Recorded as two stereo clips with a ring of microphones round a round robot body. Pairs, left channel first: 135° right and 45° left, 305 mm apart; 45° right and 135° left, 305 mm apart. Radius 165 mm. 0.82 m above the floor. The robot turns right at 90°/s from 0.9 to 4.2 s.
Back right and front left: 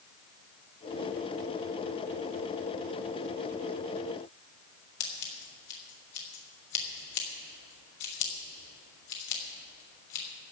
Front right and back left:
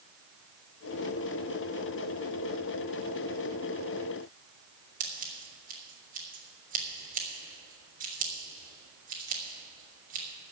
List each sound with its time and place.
5.0 s scissors: 160° right, 3.5 m